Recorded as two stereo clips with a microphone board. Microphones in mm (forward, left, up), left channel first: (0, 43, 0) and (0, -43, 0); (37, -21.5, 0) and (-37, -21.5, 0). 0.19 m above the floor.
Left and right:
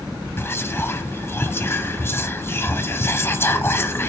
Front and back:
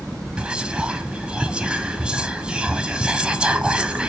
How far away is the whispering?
About 1.1 m.